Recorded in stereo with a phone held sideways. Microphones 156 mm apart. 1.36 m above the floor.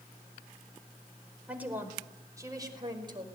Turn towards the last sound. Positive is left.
turn(degrees=-30)  # may be behind; listen again after turning